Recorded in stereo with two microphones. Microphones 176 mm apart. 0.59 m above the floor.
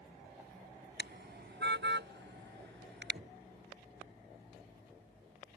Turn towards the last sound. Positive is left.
turn(degrees=-40)  # may be behind; listen again after turning